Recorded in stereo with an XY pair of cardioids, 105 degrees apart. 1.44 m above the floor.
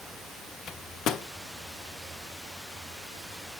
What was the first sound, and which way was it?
A microwave, 65° left.